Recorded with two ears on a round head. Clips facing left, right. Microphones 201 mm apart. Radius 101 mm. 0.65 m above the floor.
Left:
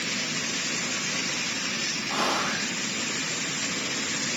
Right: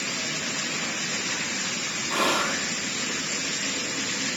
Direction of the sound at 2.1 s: 40° right (ahead or behind).